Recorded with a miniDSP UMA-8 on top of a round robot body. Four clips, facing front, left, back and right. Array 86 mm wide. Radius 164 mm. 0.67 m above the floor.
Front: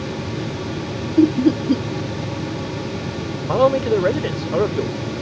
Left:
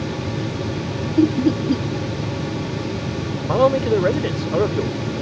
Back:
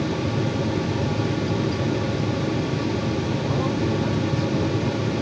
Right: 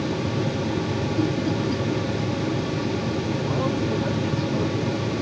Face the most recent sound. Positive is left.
turn(degrees=40)